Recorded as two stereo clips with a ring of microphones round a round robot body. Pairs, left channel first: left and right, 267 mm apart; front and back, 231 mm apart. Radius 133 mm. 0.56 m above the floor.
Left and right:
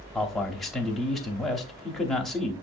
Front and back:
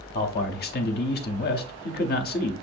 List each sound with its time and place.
0.1 s a man speaking: straight ahead, 0.8 m